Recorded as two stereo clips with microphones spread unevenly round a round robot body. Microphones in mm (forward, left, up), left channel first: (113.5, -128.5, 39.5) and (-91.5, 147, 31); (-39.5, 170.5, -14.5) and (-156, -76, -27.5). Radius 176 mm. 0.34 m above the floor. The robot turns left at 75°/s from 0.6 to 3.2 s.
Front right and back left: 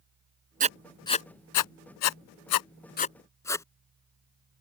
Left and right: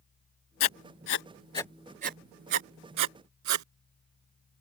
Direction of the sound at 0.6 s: 60° left.